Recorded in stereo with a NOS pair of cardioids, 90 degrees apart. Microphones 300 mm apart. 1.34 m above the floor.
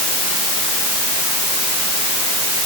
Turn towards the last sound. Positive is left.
No sound to turn to.